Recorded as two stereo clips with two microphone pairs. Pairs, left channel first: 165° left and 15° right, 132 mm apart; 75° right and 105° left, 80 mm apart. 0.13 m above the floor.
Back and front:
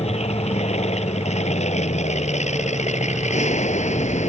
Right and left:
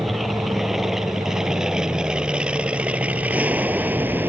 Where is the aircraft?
170° right; by 4.3 s 165° left.